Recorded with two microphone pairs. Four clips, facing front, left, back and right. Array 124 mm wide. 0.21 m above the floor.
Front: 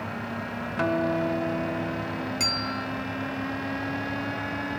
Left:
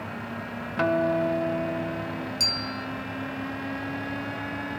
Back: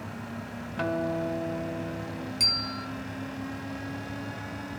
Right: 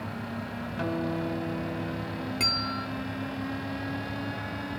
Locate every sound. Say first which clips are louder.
0.8 s a guitar: left 8 dB, front 4 dB; 65° left, 0.8 m
2.4 s a bell: right 1 dB, front 5 dB; 40° right, 1.3 m